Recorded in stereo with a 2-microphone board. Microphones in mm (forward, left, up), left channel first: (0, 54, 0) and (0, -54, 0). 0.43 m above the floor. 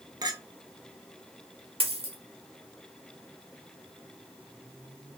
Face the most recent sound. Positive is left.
turn(degrees=-60)  # may be behind; listen again after turning